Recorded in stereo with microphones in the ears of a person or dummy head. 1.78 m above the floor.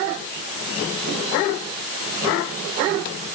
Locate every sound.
Only background noise.